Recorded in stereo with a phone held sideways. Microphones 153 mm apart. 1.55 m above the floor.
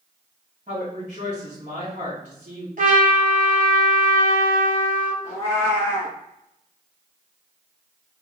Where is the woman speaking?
50° right (ahead or behind), 1.8 m.